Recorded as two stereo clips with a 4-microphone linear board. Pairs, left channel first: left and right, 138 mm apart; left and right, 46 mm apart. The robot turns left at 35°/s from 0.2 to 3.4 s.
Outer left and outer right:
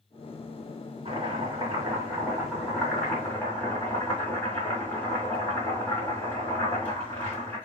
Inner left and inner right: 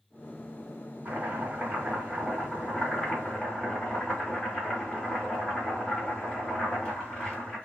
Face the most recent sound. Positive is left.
turn(degrees=165)